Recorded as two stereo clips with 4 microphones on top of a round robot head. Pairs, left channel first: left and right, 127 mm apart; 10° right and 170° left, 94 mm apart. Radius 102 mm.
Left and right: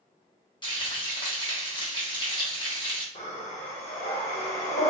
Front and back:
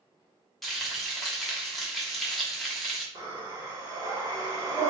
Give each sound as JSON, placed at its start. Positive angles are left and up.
{"t": 0.6, "sound": "frying", "azimuth_deg": 80, "distance_m": 1.3}
{"t": 3.1, "sound": "breathing", "azimuth_deg": 120, "distance_m": 1.2}